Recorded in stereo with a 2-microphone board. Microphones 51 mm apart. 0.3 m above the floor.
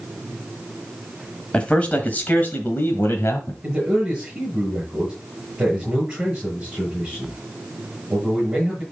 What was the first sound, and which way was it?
A man speaking, 20° left (ahead or behind).